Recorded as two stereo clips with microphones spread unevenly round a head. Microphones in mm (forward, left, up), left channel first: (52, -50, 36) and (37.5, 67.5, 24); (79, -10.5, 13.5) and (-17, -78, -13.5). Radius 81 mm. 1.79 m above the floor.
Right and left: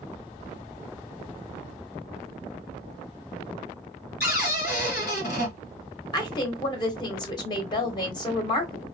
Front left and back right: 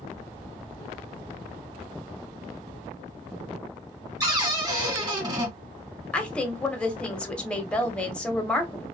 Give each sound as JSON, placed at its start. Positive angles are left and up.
{"t": 4.2, "sound": "a cupboard door", "azimuth_deg": -85, "distance_m": 1.8}
{"t": 6.1, "sound": "a woman speaking", "azimuth_deg": -40, "distance_m": 1.1}